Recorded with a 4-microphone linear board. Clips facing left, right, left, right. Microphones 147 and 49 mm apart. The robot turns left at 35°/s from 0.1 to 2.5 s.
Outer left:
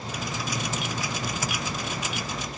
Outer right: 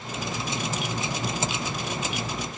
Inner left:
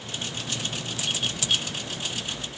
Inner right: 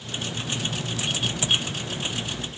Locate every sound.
Only background noise.